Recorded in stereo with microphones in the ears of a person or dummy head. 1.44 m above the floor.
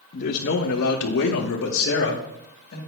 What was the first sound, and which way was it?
A man speaking, 50° left (ahead or behind).